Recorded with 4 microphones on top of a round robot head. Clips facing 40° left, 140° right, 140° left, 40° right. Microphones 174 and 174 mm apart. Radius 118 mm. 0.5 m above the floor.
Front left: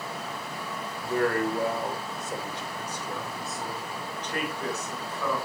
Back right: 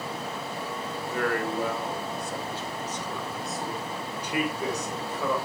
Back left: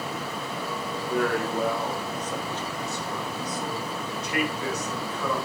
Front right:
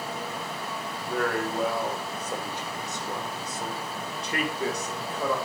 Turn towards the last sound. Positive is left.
turn(degrees=-80)